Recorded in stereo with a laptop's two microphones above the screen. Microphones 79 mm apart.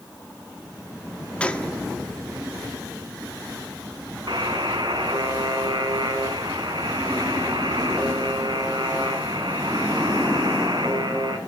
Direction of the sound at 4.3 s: 70° right (ahead or behind).